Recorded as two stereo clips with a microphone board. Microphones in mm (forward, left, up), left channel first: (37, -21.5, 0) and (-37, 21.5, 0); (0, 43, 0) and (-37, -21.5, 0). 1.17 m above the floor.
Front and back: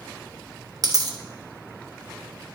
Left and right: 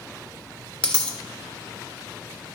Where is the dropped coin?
130° left, 0.7 m.